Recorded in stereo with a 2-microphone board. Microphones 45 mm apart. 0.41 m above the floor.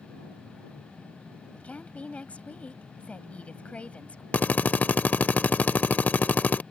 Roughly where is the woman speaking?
Left.